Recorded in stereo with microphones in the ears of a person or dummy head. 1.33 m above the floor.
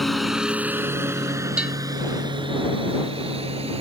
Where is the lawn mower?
Centre (ahead or behind); by 3.8 s 35° right (ahead or behind).